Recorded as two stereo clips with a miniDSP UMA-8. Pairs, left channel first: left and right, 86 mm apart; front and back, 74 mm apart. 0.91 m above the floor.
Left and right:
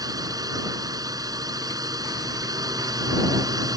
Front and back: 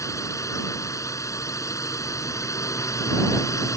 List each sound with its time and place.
0.0 s a drone: 45° right